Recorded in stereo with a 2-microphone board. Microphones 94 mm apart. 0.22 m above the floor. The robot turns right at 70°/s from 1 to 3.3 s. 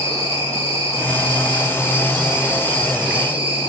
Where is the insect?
90° left, 1.4 m; by 3.7 s 110° right, 1.4 m.